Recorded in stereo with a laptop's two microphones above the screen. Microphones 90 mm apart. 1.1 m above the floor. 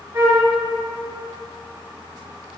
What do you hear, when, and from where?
0.1 s a flute: 45° right (ahead or behind), 3.5 m